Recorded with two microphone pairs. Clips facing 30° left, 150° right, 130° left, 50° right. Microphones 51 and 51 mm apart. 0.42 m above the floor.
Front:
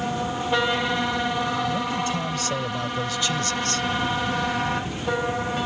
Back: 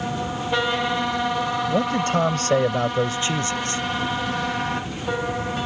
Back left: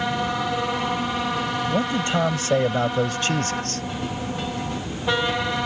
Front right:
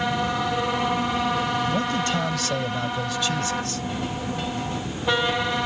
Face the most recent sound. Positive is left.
turn(degrees=150)